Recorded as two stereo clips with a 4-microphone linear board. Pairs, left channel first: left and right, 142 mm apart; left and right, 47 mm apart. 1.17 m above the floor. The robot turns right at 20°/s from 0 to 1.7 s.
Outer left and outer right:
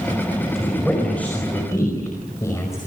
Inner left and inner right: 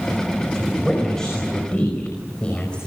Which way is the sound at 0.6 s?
5° right (ahead or behind).